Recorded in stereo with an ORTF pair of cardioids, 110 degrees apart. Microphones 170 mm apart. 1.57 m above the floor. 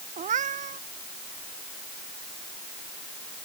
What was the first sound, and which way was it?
A cat meowing, 50° right.